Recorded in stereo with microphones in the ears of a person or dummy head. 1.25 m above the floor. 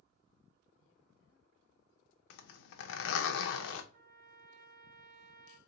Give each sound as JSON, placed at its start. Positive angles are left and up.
{"t": 2.3, "sound": "a zipper", "side_deg": 70, "distance_m": 0.6}
{"t": 3.9, "sound": "a trumpet", "side_deg": -50, "distance_m": 1.0}